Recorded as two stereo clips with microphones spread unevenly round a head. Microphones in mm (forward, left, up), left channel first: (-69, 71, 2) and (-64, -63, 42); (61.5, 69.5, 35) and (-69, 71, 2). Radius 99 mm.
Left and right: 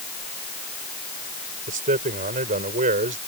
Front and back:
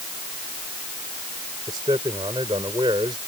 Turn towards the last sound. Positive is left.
turn(degrees=-105)